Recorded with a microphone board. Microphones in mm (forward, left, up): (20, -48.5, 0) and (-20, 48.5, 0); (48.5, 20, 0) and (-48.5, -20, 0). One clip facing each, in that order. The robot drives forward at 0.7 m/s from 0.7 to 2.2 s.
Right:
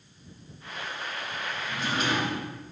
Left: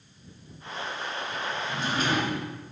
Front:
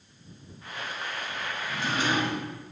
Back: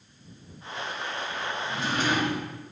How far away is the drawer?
About 1.9 m.